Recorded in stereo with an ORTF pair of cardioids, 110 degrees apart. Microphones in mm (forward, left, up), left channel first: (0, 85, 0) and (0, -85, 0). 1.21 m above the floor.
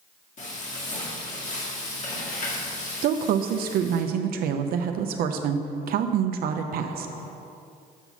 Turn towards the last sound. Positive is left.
turn(degrees=-60)